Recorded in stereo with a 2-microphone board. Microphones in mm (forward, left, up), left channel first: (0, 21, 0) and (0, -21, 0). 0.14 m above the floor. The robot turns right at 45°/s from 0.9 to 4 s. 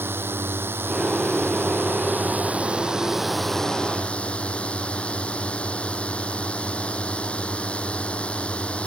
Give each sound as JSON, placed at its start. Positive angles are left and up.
{"t": 0.0, "sound": "a drone", "azimuth_deg": -110}